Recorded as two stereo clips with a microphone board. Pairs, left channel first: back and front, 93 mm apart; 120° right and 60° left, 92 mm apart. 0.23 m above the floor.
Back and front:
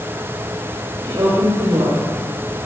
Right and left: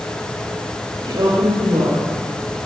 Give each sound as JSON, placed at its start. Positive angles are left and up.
{"t": 1.0, "sound": "a woman speaking", "azimuth_deg": 40, "distance_m": 4.5}